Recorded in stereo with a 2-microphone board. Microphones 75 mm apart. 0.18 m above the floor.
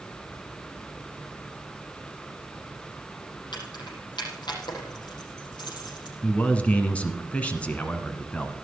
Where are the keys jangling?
80° left, 5.5 m.